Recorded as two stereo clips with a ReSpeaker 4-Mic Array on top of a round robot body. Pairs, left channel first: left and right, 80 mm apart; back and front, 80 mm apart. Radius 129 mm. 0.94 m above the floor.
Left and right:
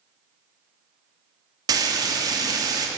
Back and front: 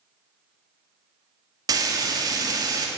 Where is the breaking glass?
No breaking glass in this recording.